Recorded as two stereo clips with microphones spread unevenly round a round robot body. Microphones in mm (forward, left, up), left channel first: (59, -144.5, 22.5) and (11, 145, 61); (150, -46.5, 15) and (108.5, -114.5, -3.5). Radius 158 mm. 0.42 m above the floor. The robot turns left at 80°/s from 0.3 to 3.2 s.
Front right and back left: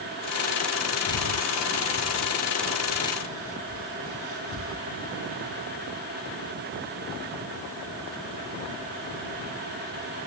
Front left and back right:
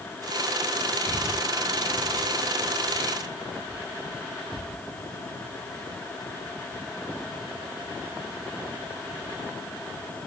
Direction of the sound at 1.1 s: 40° right.